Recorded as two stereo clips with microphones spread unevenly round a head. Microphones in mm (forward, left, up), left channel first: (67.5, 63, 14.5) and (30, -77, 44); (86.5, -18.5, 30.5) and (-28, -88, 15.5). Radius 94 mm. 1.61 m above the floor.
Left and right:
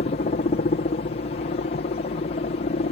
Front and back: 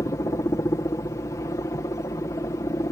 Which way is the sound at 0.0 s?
100° left.